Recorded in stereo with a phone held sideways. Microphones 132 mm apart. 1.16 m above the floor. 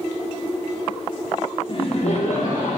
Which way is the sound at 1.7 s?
40° left (ahead or behind).